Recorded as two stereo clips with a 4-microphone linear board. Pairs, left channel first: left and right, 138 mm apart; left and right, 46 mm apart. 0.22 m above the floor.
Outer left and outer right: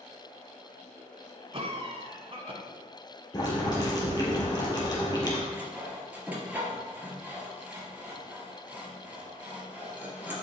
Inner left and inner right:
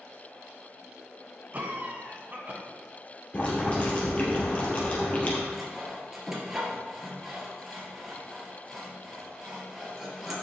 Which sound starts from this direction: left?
Boiling, at 3.3 s.